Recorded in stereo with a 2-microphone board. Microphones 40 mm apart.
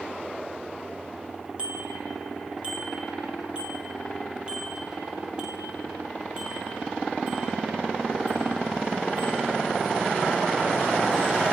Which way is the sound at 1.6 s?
25° right (ahead or behind).